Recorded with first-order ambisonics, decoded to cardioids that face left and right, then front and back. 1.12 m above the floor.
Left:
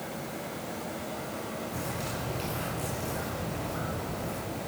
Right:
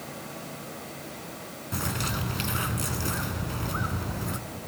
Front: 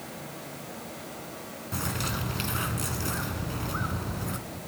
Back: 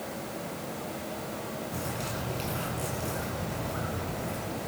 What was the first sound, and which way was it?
A bird, 50° right.